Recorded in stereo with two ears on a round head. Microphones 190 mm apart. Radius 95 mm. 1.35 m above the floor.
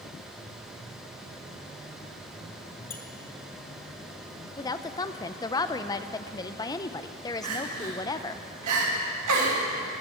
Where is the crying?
85° right, 2.5 m.